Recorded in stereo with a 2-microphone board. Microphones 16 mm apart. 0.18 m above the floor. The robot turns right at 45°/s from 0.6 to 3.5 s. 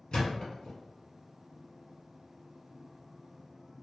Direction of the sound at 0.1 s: 60° left (ahead or behind).